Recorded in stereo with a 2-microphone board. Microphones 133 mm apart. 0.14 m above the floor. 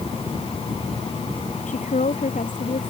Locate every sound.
1.7 s a woman speaking: 70° left (ahead or behind)